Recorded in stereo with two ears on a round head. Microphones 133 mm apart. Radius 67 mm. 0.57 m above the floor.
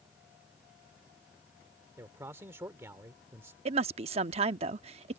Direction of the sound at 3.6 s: 40° right (ahead or behind).